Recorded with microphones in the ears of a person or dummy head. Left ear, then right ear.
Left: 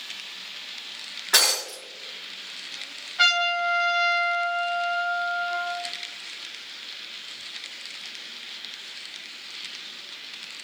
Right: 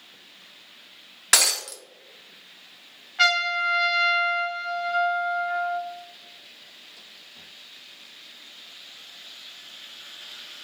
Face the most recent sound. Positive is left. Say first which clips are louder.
# even
turn(degrees=-10)  # may be behind; listen again after turning